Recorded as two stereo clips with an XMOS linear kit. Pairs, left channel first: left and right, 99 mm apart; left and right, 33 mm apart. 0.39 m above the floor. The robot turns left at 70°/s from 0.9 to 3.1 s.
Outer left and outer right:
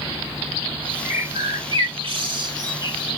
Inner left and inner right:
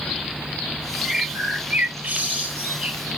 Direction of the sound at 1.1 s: 20° right.